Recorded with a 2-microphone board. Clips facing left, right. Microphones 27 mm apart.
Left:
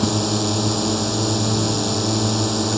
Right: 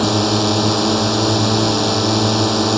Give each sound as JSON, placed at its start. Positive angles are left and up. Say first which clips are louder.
{"t": 0.0, "sound": "a drone", "louder": "right 5 dB", "side_deg": -30}